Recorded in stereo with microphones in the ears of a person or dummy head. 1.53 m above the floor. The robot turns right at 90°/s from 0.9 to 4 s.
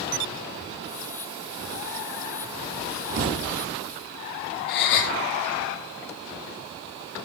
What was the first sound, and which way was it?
A thud, 100° right.